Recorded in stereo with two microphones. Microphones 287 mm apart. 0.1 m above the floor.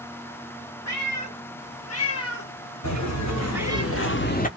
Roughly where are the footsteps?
Left.